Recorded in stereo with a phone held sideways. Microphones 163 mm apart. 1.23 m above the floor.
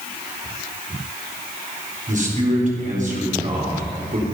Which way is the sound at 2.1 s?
50° right (ahead or behind).